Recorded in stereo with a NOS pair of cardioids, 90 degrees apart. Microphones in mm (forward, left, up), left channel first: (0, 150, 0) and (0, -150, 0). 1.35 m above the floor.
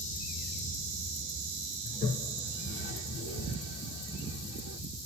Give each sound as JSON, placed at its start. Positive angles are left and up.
{"t": 1.9, "sound": "a toilet flushing", "azimuth_deg": 45, "distance_m": 1.1}